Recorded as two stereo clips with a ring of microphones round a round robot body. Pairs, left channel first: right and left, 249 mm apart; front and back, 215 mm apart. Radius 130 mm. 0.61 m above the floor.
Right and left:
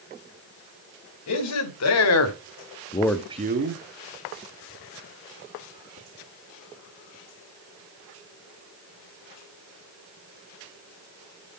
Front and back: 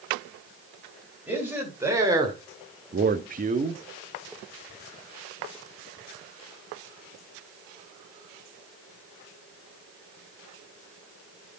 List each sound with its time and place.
1.3 s a man speaking: 95° right, 2.5 m; by 3.8 s 120° left, 1.2 m